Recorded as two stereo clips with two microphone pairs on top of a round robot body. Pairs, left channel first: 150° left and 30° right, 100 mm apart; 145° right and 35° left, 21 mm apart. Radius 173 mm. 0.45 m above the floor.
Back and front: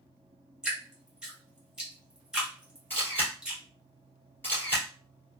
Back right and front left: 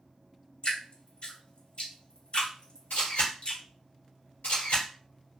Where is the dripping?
110° right, 2 m.